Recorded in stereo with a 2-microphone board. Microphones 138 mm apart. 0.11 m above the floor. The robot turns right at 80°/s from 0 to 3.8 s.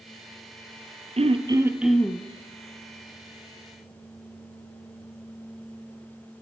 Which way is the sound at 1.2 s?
60° right.